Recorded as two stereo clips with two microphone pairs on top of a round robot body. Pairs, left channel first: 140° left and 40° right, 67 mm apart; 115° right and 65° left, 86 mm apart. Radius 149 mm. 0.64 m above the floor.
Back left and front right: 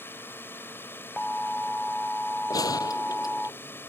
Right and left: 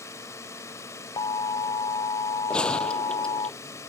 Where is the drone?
165° right.